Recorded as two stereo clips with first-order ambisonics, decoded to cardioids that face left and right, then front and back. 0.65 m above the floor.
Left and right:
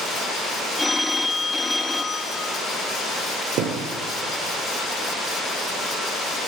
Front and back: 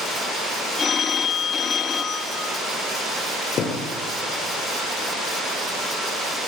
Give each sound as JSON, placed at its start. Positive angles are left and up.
{"t": 0.8, "sound": "a phone ringing", "azimuth_deg": 15, "distance_m": 0.6}
{"t": 3.6, "sound": "a thud", "azimuth_deg": -55, "distance_m": 3.0}